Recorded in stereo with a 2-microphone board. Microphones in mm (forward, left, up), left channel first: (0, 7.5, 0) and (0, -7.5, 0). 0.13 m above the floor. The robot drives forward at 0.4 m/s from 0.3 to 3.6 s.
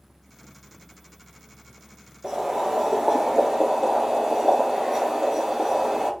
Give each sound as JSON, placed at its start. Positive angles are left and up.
{"t": 2.2, "sound": "boiling", "side_deg": -40, "distance_m": 1.6}